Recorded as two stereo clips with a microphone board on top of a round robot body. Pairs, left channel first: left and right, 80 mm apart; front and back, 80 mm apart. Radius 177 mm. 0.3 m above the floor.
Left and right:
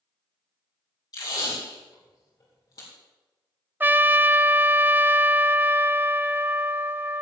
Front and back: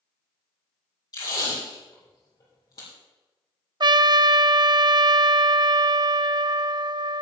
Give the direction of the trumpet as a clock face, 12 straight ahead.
5 o'clock.